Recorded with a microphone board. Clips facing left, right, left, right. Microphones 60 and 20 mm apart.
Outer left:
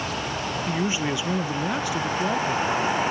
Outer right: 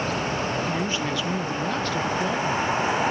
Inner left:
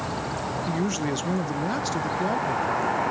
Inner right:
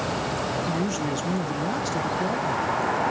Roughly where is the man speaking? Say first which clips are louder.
Outer left 1 dB, even; centre.